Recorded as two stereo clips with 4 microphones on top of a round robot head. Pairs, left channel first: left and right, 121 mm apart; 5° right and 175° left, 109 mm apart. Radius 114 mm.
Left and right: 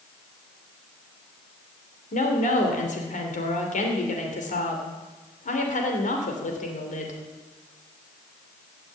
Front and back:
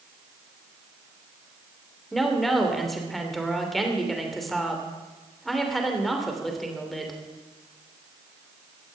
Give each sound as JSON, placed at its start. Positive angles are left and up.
{"t": 2.1, "sound": "a woman speaking", "azimuth_deg": 85, "distance_m": 3.0}